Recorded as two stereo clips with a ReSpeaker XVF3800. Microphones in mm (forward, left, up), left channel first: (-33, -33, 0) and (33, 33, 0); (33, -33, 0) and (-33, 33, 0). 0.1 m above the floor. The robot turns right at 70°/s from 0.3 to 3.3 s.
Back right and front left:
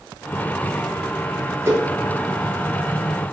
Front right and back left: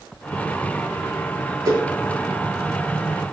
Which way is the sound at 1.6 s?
95° left.